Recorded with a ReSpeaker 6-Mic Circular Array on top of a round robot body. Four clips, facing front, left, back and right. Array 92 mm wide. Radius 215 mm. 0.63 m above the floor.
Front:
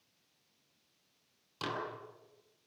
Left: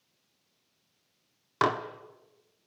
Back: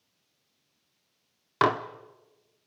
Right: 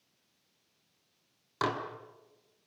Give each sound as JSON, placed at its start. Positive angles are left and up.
{"t": 1.6, "sound": "dishes clattering", "azimuth_deg": 160, "distance_m": 1.4}